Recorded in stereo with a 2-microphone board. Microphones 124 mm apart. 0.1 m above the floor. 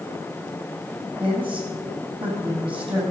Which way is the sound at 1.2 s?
45° right (ahead or behind).